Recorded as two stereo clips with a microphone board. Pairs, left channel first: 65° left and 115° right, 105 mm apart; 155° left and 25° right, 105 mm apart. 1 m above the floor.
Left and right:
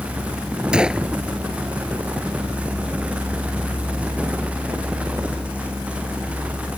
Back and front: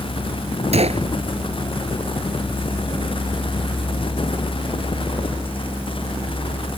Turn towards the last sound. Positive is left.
turn(degrees=-30)